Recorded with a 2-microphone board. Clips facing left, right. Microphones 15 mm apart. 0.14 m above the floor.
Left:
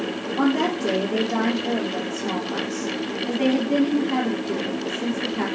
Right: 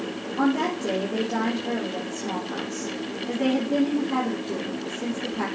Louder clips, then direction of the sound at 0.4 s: Left 2 dB; 40° left (ahead or behind).